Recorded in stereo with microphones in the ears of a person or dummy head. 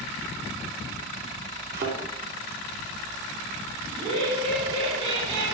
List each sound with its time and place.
1.7 s a thud: 55° right (ahead or behind), 3 m
3.9 s laughter: 30° right (ahead or behind), 4 m